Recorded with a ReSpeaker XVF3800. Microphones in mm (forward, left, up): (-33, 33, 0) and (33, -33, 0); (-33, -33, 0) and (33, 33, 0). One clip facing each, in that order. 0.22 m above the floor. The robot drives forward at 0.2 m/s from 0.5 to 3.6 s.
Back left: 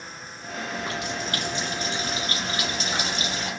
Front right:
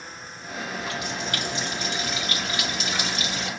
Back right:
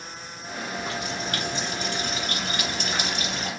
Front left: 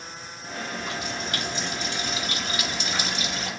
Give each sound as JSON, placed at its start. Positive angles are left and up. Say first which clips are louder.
{"t": 0.8, "sound": "a running tap", "louder": "back left 1 dB, back right 3 dB", "azimuth_deg": -175, "distance_m": 1.8}